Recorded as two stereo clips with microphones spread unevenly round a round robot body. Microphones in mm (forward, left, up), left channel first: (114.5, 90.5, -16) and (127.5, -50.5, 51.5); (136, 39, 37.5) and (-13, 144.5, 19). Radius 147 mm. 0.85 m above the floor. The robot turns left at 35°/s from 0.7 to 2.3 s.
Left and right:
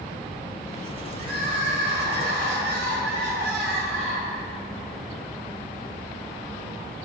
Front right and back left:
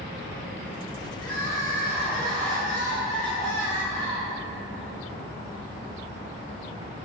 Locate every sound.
1.2 s crying: 70° right, 2.5 m; by 4.4 s 105° right, 2.5 m